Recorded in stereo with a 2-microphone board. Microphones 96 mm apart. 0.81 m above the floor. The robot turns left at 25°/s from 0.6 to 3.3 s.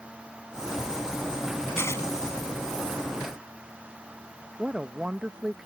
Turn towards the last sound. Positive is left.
turn(degrees=-10)  # may be behind; listen again after turning